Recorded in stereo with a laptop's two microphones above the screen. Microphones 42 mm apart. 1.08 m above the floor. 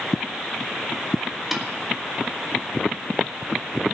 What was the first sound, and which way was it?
A snare drum, centre (ahead or behind).